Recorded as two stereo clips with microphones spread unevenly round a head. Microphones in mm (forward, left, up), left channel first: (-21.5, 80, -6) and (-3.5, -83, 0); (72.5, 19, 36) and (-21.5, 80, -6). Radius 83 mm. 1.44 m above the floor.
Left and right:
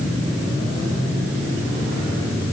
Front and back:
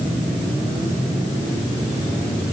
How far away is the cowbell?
No cowbell in this recording.